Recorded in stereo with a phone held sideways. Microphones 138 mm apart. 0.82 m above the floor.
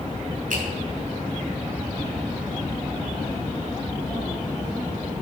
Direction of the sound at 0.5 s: 75° right (ahead or behind).